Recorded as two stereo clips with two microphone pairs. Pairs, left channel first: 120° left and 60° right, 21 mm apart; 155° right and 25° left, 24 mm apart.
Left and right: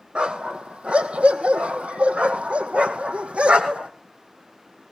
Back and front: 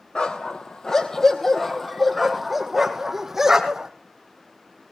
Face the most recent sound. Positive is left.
turn(degrees=-40)